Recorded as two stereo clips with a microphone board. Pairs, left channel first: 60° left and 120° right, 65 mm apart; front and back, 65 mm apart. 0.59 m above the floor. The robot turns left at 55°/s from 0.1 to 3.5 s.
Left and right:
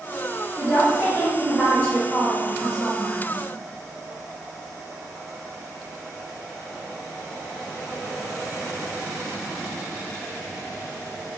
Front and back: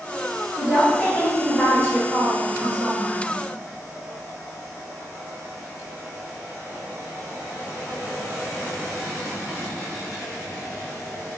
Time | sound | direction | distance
0.6 | a woman speaking | 80° right | 1.5 m